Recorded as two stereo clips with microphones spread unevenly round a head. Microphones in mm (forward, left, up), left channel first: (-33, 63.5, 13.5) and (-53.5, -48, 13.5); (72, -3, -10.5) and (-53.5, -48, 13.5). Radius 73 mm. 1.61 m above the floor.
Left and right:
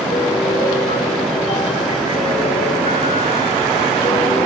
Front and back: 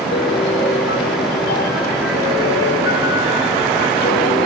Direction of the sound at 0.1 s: 30° left.